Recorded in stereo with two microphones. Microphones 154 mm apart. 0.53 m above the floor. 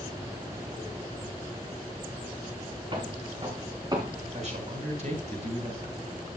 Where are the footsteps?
35° right (ahead or behind), 3 m; by 4.2 s 25° right (ahead or behind), 3.5 m.